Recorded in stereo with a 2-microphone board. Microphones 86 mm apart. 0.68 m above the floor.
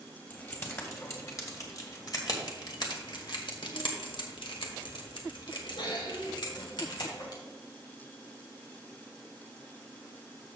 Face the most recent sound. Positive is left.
turn(degrees=55)  # may be behind; listen again after turning